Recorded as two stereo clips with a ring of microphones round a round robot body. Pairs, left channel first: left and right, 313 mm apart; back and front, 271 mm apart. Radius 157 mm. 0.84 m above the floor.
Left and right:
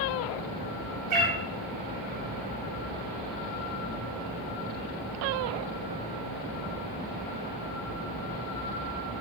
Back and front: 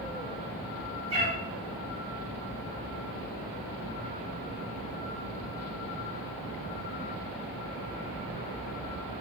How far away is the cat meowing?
About 0.8 m.